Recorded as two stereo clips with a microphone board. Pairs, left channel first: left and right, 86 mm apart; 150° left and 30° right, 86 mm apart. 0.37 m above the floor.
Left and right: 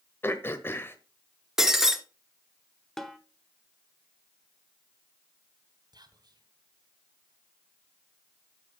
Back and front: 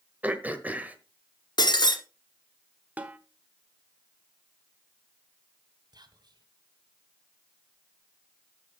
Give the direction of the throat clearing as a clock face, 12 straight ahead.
11 o'clock.